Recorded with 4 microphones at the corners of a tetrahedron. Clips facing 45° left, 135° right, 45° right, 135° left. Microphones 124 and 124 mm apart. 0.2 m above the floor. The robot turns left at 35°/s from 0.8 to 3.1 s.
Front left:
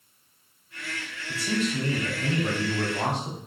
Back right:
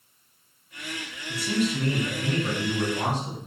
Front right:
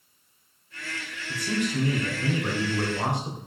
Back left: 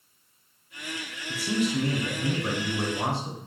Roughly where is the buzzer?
No buzzer in this recording.